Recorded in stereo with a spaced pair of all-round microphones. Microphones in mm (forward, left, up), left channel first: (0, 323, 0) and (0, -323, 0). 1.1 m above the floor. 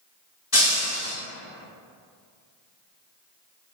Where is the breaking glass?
30° left (ahead or behind), 1.1 m.